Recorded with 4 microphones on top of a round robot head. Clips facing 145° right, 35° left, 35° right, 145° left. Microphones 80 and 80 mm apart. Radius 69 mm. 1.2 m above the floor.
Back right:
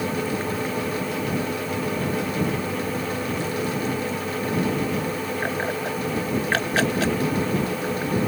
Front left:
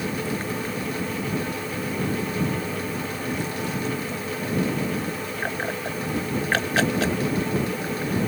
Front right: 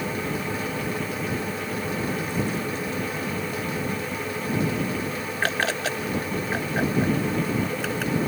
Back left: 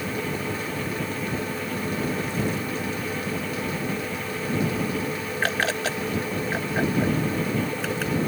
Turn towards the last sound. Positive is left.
No sound to turn to.